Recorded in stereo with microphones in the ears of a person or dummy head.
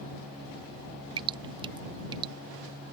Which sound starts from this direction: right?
Dripping, at 1.2 s.